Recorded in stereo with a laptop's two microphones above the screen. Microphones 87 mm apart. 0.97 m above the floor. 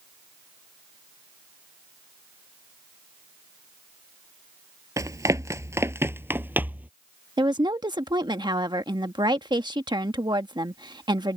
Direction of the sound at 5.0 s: 40° right (ahead or behind).